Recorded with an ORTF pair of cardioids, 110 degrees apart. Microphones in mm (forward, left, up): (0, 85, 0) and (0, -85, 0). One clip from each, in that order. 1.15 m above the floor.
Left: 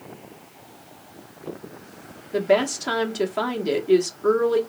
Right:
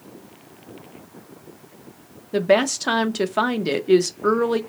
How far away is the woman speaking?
About 0.8 m.